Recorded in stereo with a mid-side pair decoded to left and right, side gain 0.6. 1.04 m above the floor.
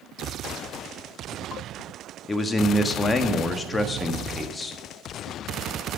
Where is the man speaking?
20° left, 1.6 m.